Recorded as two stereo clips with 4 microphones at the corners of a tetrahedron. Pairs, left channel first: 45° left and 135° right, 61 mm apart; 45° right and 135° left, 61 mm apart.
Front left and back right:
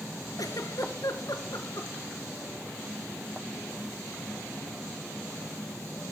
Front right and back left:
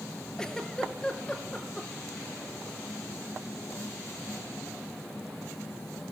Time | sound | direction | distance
0.4 | a giggle | 35° left | 1.2 m